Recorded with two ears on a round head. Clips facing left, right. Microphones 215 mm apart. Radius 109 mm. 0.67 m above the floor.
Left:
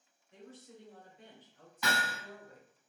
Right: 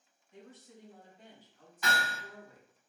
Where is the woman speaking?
55° left (ahead or behind), 1.5 m; by 2.7 s 50° left (ahead or behind), 2.5 m.